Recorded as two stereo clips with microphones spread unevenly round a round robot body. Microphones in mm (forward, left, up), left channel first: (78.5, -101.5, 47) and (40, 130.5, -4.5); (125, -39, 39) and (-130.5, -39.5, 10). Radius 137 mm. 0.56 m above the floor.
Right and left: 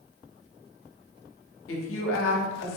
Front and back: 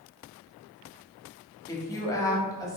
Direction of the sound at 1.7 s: 80° right.